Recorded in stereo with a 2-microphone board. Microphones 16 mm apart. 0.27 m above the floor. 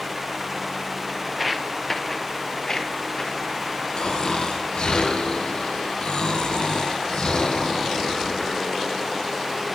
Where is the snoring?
75° left (ahead or behind), 3.5 m.